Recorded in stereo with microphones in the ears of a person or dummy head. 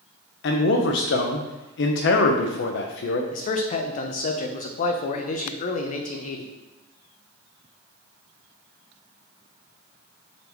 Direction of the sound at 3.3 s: 45° left (ahead or behind).